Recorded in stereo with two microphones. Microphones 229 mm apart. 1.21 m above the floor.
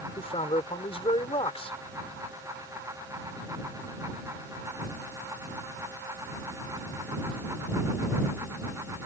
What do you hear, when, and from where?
0.2 s a man speaking: 25° left (ahead or behind)